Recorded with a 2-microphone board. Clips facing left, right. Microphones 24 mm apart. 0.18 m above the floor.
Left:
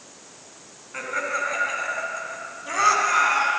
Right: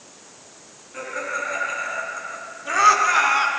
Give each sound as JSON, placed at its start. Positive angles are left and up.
{"t": 0.9, "sound": "laughter", "side_deg": 35, "distance_m": 2.0}